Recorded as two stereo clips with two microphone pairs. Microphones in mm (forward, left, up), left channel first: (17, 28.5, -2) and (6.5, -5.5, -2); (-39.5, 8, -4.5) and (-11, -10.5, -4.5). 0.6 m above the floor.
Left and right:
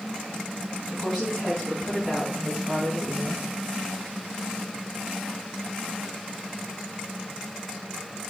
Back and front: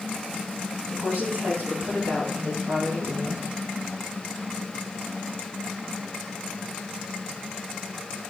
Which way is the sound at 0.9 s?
5° left.